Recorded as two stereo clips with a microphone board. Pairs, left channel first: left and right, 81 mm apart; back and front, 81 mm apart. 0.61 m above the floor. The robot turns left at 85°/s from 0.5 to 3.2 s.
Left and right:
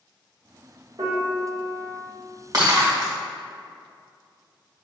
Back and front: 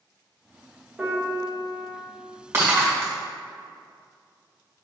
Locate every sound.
1.0 s a piano: 75° right, 1.0 m; by 1.9 s 155° right, 1.0 m
2.5 s breaking glass: 55° right, 1.4 m; by 3.1 s 105° right, 1.4 m